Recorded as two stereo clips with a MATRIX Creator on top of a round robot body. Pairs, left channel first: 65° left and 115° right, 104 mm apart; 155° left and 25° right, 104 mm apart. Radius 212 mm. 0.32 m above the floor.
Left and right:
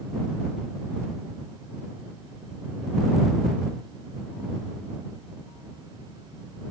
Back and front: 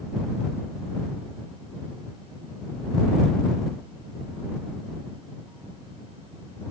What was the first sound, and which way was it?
Only background noise.